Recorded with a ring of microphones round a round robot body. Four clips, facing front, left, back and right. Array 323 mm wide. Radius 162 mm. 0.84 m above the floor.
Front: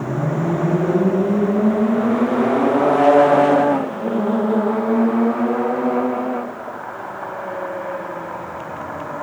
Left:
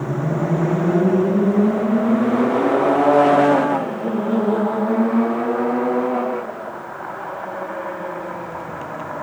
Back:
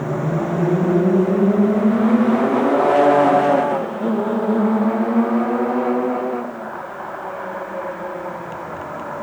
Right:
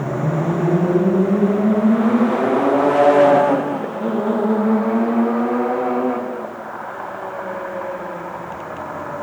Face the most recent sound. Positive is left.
No sound to turn to.